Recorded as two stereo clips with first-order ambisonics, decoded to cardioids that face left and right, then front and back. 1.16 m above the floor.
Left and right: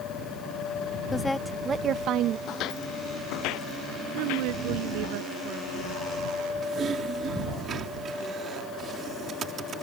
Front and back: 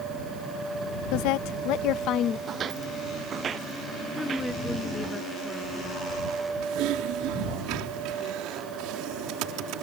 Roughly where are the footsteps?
Behind left.